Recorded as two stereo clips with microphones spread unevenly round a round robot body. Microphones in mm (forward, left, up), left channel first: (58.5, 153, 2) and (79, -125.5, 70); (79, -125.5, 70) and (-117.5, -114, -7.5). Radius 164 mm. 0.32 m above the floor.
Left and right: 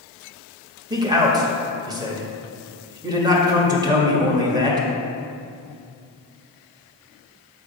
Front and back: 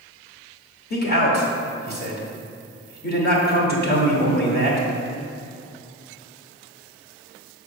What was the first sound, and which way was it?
A man speaking, 5° left.